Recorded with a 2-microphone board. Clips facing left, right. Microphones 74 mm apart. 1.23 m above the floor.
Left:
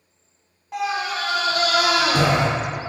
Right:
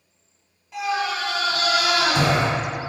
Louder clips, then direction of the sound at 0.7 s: Even; 50° left (ahead or behind).